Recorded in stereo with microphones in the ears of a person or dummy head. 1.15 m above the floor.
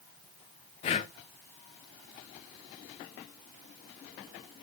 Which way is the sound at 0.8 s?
40° left (ahead or behind).